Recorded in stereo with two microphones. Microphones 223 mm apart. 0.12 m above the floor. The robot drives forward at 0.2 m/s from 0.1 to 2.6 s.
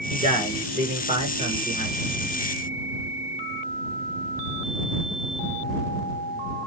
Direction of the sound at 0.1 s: 30° right (ahead or behind).